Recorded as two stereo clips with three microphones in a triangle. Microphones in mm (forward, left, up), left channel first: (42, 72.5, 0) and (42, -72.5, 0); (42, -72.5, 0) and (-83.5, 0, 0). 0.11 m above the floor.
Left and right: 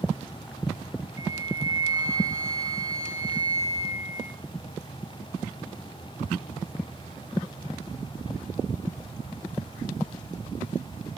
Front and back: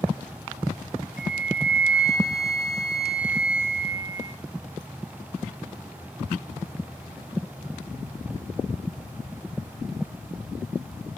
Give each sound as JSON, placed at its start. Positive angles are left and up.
{"t": 1.2, "sound": "a flute", "azimuth_deg": -30, "distance_m": 3.5}